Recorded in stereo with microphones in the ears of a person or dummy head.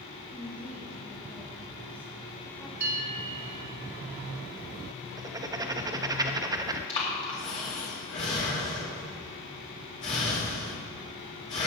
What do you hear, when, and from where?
0.3 s a woman speaking: 15° left (ahead or behind), 2 m
2.8 s a bell: 55° right (ahead or behind), 3.5 m
5.2 s writing: 15° right (ahead or behind), 0.6 m
6.9 s breathing: 35° left (ahead or behind), 2.5 m